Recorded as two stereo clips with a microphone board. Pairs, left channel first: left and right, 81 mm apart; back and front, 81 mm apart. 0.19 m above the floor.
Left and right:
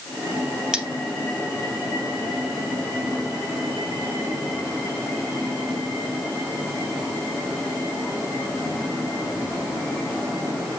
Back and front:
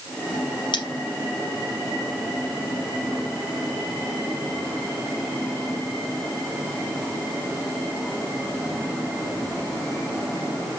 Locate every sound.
0.7 s cutlery clinking: 170° right, 3 m